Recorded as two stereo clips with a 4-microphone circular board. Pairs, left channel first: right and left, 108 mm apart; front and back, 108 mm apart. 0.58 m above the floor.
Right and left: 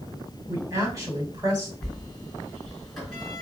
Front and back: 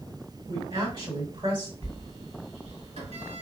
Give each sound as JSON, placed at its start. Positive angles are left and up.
{"t": 0.5, "sound": "a woman speaking", "azimuth_deg": 145, "distance_m": 1.9}
{"t": 1.8, "sound": "a sliding door", "azimuth_deg": -175, "distance_m": 2.5}